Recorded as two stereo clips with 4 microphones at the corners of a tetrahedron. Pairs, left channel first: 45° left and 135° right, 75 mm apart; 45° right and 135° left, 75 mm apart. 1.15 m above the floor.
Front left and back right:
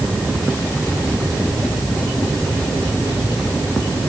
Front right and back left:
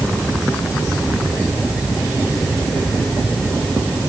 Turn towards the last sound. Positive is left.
No sound to turn to.